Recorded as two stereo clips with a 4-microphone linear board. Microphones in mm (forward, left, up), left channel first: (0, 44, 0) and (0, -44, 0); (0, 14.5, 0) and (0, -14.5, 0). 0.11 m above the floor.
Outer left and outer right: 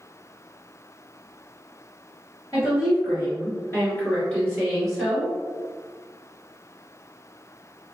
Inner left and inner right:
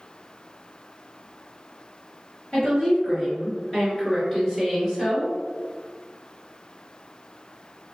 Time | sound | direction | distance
2.5 | a woman speaking | 40° left (ahead or behind) | 2.0 m